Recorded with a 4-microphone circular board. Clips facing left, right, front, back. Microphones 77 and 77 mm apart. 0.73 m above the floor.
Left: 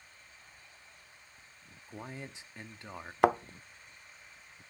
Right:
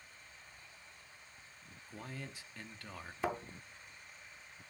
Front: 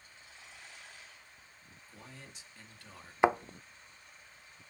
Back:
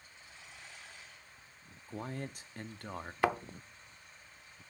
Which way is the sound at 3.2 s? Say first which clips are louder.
Left 12 dB, front 4 dB; 70° left.